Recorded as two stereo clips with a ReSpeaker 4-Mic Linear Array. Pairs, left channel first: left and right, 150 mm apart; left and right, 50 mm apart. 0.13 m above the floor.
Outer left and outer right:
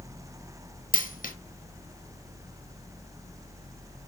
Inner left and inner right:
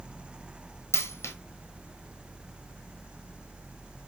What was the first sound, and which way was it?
A dropped coin, 70° left (ahead or behind).